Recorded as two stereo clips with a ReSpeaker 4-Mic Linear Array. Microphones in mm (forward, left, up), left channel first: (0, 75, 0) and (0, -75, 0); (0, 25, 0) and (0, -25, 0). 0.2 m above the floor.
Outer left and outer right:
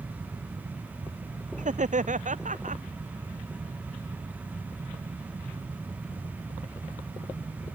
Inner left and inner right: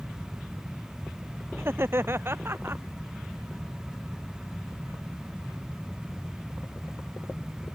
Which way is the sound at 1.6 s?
55° right (ahead or behind).